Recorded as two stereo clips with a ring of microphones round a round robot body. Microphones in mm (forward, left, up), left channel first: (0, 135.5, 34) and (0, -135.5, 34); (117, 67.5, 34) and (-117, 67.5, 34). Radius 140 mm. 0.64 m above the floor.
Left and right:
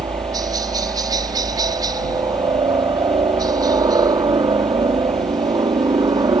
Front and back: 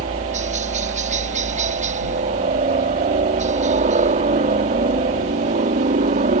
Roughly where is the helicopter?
Behind right.